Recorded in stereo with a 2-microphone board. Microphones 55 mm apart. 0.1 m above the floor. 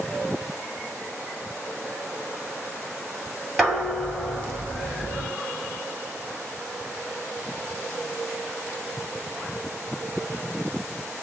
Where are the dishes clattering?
5° right (ahead or behind), 1.4 m.